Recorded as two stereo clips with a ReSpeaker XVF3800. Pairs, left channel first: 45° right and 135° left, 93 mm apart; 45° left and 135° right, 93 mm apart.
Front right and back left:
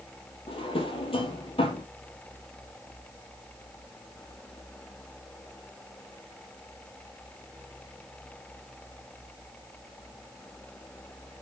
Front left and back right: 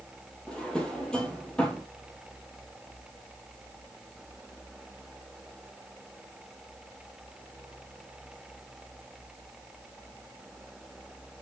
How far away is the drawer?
About 1.2 m.